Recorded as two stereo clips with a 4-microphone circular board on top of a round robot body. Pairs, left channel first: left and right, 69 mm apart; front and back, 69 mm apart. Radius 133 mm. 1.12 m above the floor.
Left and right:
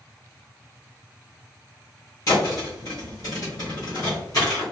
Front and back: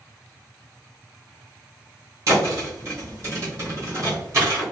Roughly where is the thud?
Behind left.